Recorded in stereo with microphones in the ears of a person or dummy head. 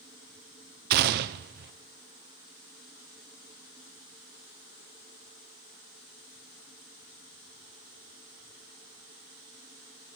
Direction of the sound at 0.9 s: 55° right (ahead or behind).